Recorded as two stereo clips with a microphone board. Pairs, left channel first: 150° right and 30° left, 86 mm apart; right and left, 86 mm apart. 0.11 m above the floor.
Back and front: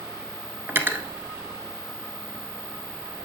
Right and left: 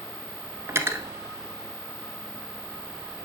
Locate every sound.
0.7 s cutlery clinking: 70° left, 0.8 m